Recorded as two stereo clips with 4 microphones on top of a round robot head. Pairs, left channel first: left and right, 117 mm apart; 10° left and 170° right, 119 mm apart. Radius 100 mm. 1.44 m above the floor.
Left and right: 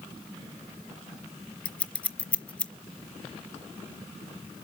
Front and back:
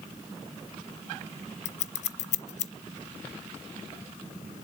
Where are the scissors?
15° left, 0.6 m.